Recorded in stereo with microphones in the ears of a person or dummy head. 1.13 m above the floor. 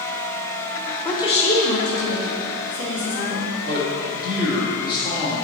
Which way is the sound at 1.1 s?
10° left (ahead or behind).